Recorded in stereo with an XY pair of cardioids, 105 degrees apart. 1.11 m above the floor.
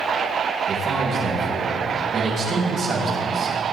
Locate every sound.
0.7 s a man speaking: 55° right, 5.5 m